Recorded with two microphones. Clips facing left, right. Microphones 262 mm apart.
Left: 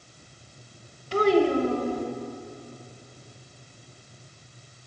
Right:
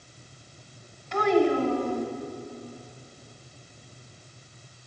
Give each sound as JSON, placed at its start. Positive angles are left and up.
{"t": 1.1, "sound": "a child speaking", "side_deg": 40, "distance_m": 1.0}